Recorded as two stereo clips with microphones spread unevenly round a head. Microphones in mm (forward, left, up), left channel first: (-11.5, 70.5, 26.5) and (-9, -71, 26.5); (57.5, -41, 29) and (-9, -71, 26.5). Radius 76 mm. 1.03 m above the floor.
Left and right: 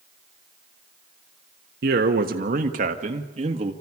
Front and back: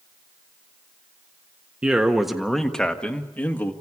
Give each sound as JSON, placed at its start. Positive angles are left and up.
{"t": 1.8, "sound": "a man speaking", "azimuth_deg": -80, "distance_m": 1.3}